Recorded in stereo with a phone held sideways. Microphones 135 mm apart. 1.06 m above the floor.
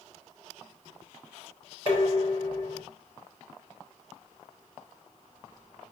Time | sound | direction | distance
1.9 | dishes clattering | 45° left (ahead or behind) | 3 m